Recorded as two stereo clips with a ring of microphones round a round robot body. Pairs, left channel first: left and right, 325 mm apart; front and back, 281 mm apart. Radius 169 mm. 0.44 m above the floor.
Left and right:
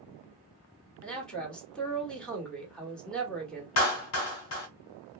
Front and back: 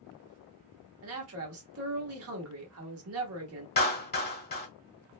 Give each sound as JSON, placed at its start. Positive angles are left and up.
{"t": 1.0, "sound": "a man speaking", "azimuth_deg": 175, "distance_m": 1.3}
{"t": 3.8, "sound": "a clap", "azimuth_deg": 55, "distance_m": 1.2}